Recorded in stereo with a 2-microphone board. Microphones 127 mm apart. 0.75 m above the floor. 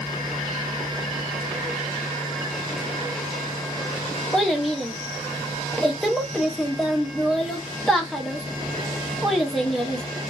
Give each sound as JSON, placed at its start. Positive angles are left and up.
{"t": 4.3, "sound": "a child speaking", "side_deg": 0, "distance_m": 0.7}